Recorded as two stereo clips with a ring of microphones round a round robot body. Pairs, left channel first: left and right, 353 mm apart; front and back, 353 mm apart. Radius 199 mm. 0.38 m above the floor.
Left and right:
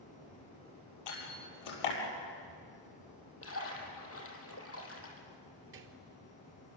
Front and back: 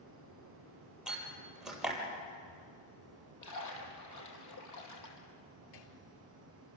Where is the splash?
40° left, 5.5 m.